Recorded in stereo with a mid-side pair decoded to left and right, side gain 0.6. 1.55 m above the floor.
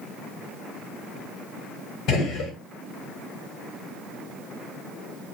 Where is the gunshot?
60° left, 1.6 m.